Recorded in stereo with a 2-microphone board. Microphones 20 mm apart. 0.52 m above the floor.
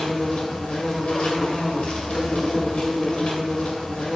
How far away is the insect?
About 2.5 m.